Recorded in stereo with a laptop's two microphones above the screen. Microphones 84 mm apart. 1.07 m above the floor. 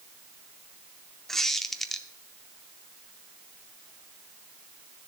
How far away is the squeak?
About 0.7 m.